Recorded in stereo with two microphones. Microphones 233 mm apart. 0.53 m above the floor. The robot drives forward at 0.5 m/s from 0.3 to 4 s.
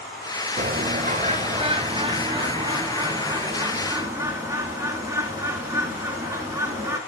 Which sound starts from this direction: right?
A bird, at 0.6 s.